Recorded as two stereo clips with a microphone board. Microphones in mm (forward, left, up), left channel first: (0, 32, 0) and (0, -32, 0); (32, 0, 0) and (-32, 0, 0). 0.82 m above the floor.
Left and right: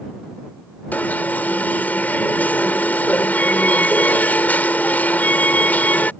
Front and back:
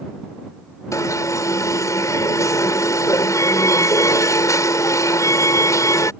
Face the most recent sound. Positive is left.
turn(degrees=30)